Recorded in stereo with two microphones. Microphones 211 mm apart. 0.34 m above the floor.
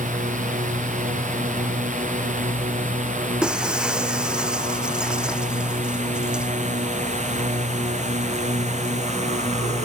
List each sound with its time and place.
0.0 s a drone: 35° right (ahead or behind)
3.4 s breaking glass: 5° right (ahead or behind)